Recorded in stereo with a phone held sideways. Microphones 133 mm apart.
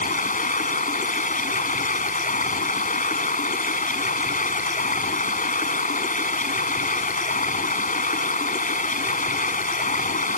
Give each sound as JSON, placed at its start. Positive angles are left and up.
{"t": 0.0, "sound": "running water", "side_deg": 90}